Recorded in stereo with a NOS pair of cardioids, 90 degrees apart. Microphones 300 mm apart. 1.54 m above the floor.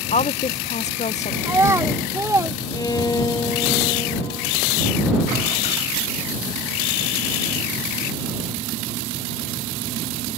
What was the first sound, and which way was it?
A woman speaking, 25° left.